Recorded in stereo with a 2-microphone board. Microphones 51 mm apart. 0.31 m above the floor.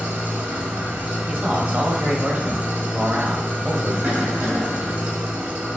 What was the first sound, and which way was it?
An engine running, 40° right (ahead or behind).